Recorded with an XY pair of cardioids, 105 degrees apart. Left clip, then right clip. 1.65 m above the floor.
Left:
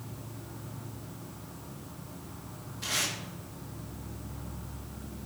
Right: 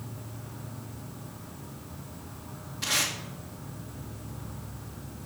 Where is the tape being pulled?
40° right, 1.7 m.